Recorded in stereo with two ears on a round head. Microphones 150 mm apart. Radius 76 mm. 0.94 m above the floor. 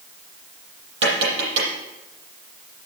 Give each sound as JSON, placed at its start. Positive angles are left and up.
{"t": 1.0, "sound": "tapping", "side_deg": -70, "distance_m": 7.5}